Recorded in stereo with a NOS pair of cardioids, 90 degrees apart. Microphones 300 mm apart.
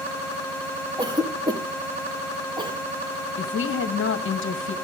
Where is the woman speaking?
45° left, 1.4 m.